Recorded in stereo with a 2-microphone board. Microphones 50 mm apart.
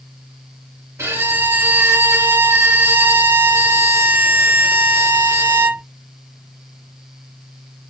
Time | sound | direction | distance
1.0 | a violin | 70° right (ahead or behind) | 2 m